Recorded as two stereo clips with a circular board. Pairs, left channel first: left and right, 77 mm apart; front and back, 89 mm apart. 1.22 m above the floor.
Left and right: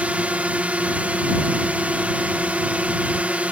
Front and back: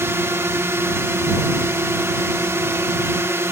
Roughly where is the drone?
Behind right.